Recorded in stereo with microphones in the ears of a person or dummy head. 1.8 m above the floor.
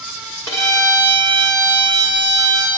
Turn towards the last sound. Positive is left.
turn(degrees=20)  # may be behind; listen again after turning